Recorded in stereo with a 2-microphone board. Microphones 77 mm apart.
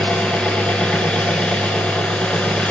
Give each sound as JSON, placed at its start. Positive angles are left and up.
{"t": 0.0, "sound": "an engine running", "side_deg": 15, "distance_m": 1.4}